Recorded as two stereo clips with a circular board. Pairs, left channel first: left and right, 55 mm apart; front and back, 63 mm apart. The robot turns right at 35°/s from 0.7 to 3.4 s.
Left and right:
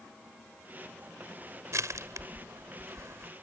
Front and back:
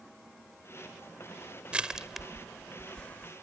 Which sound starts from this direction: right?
Crushing, at 1.7 s.